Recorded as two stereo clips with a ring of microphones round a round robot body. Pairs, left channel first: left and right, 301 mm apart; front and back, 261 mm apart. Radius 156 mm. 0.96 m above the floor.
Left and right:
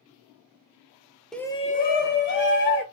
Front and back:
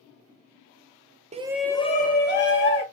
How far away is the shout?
About 0.7 m.